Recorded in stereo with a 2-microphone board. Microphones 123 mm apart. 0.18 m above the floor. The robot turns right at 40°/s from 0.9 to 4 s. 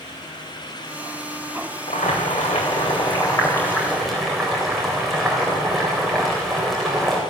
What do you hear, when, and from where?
1.9 s boiling: 95° left, 4 m; by 7.2 s straight behind, 4 m